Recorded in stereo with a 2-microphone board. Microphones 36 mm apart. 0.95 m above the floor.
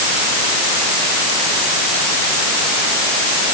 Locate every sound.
Only background noise.